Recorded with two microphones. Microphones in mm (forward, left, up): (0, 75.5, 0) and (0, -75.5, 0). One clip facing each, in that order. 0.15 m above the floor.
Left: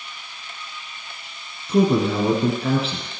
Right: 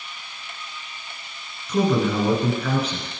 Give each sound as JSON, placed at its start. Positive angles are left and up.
{"t": 1.7, "sound": "a man speaking", "side_deg": 30, "distance_m": 1.7}